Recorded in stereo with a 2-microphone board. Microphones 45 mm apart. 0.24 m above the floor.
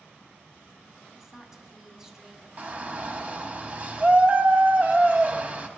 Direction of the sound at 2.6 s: 35° right (ahead or behind).